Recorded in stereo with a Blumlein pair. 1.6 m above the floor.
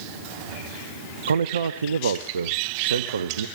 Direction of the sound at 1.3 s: 65° right.